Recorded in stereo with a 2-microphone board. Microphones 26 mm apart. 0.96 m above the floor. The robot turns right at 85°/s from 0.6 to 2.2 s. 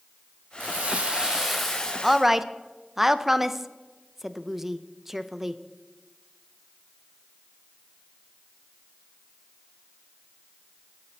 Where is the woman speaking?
Centre (ahead or behind), 0.6 m; by 5.6 s 10° right (ahead or behind), 0.6 m.